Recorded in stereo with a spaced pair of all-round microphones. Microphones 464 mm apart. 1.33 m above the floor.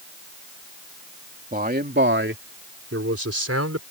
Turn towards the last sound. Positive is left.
turn(degrees=-30)  # may be behind; listen again after turning